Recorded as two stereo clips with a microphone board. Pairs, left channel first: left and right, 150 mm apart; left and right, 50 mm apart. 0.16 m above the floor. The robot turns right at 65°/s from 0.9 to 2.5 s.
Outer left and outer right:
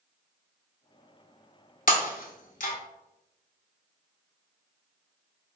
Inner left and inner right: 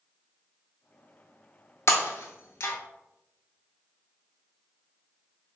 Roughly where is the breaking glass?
Left.